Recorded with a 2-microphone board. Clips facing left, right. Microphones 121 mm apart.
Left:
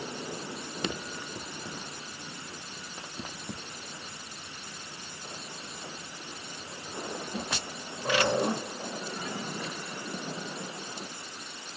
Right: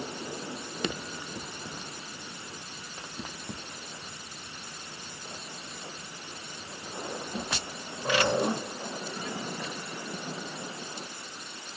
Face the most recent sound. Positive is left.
No sound to turn to.